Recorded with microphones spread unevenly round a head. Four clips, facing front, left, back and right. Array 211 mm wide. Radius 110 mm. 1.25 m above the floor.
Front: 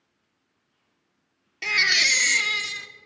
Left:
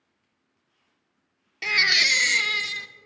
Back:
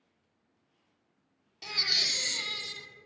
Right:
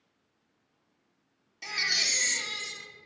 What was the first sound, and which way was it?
A baby crying, 50° left.